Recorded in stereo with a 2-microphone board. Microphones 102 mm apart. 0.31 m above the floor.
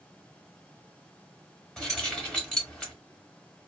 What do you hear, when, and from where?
1.8 s keys jangling: 5° left (ahead or behind), 1.0 m